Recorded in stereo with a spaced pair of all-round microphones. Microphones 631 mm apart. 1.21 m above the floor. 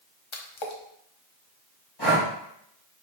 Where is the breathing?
35° left (ahead or behind), 1.8 m.